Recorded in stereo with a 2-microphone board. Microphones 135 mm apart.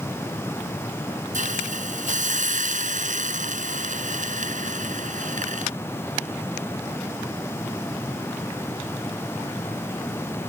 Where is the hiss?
65° right (ahead or behind).